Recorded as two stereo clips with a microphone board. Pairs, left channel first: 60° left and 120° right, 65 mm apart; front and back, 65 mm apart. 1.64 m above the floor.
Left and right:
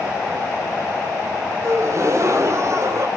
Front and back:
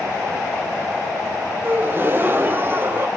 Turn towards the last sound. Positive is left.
turn(degrees=-135)